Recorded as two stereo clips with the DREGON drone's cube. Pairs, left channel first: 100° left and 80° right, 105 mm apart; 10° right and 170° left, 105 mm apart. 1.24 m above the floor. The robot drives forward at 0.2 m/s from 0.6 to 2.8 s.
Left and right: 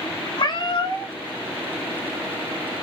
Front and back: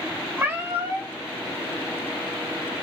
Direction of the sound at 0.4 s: 105° left.